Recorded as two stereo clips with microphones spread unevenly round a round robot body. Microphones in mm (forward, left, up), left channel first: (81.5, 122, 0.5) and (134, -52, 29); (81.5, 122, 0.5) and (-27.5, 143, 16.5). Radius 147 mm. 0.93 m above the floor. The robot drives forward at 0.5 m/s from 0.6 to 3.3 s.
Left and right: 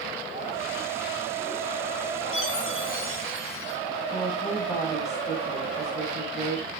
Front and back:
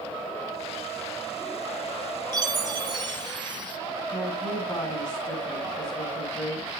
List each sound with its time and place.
2.3 s a chime: 115° left, 4 m; by 3.8 s 120° left, 4.5 m
4.1 s a woman speaking: 35° left, 6 m